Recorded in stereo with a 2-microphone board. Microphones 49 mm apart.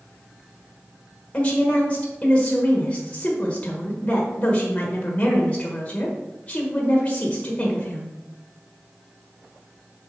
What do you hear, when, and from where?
1.3 s a woman speaking: 30° left (ahead or behind), 1.3 m